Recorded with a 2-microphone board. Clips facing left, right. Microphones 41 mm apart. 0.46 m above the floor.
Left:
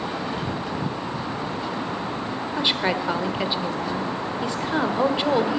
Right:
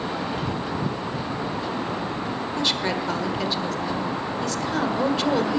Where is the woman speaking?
20° left (ahead or behind), 1.4 m.